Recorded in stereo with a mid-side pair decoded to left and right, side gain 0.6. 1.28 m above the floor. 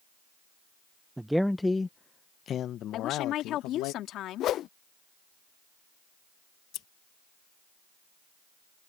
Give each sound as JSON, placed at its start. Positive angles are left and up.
{"t": 1.2, "sound": "a man speaking", "azimuth_deg": -10}
{"t": 2.9, "sound": "a woman speaking", "azimuth_deg": 60}
{"t": 4.4, "sound": "a whoosh", "azimuth_deg": 55}
{"t": 6.7, "sound": "scissors", "azimuth_deg": 60}